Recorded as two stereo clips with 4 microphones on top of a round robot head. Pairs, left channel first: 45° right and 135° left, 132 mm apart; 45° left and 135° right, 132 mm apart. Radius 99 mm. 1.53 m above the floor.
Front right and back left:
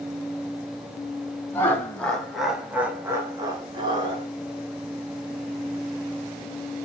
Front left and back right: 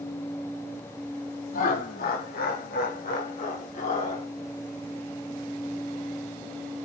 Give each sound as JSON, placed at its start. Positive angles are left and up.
{"t": 1.5, "sound": "laughter", "azimuth_deg": 30, "distance_m": 2.5}